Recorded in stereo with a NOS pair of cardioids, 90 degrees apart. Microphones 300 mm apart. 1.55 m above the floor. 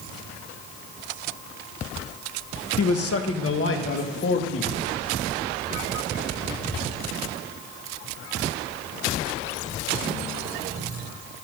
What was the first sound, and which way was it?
A man speaking, 55° left.